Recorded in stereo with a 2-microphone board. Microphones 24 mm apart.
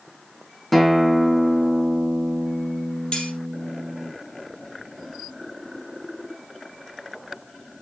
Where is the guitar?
5° left (ahead or behind), 2.5 m.